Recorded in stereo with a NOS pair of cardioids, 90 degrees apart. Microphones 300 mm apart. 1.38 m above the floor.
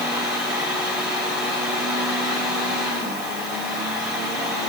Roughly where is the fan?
Ahead.